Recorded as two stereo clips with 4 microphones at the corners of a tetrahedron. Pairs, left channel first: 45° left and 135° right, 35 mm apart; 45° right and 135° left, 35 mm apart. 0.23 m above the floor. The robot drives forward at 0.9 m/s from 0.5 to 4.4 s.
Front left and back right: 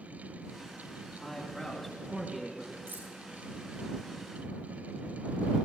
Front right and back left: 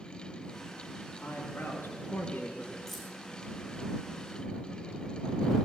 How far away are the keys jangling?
About 7.5 m.